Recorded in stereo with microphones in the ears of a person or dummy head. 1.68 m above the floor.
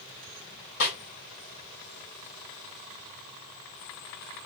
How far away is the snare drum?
About 3 m.